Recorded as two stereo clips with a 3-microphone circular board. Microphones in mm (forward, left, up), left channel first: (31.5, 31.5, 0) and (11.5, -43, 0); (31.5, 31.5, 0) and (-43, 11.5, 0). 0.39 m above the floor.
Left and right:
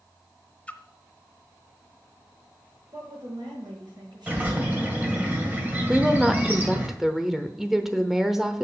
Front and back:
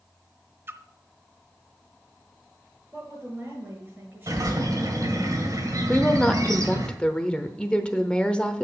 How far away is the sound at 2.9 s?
About 6 m.